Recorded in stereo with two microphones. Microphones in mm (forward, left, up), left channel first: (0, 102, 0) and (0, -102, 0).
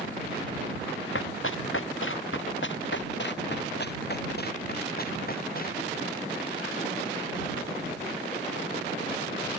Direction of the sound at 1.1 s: 75° left (ahead or behind).